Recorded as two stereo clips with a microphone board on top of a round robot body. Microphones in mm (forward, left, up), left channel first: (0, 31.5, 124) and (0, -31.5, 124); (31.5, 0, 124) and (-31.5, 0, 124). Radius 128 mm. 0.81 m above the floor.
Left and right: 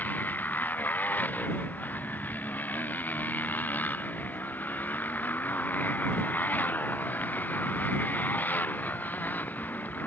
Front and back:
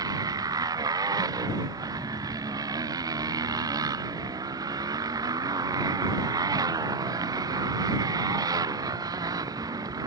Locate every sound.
0.0 s a motorcycle: 155° left